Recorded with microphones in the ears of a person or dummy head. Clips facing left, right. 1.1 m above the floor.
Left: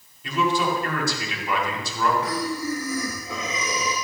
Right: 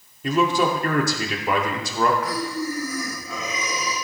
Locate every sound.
0.2 s a man speaking: 45° right (ahead or behind), 2 m
2.2 s breathing: 35° left (ahead or behind), 3 m